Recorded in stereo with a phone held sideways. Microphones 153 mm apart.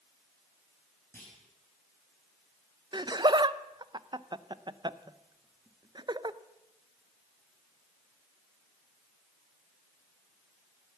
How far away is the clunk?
About 5 m.